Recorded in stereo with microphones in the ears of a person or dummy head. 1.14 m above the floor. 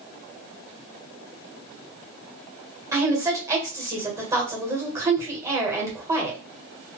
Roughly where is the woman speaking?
Centre.